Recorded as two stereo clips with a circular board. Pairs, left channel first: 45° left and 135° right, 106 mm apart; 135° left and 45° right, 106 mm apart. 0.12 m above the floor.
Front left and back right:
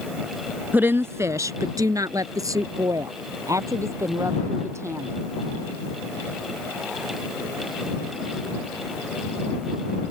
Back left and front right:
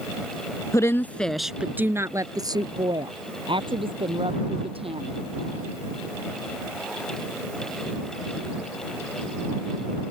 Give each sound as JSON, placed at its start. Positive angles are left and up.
{"t": 0.7, "sound": "a woman speaking", "azimuth_deg": 165}